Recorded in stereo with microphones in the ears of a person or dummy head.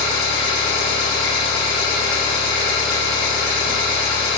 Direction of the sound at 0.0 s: 15° right (ahead or behind).